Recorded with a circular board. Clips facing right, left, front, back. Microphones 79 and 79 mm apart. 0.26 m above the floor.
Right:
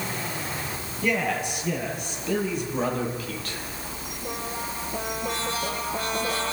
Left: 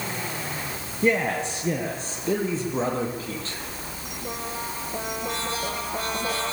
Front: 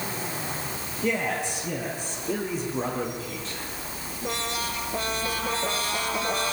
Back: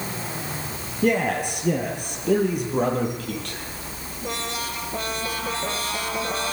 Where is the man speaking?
150° left, 6.5 m; by 3.6 s 155° left, 9 m.